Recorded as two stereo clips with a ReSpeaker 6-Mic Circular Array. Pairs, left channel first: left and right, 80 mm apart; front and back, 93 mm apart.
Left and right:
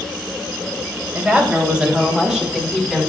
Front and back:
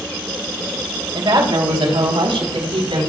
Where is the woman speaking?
155° right, 3 m; by 3.1 s straight behind, 4.5 m.